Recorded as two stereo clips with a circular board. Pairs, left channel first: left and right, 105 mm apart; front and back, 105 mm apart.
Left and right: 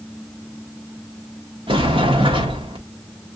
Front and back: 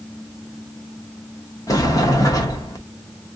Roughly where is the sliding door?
Ahead right.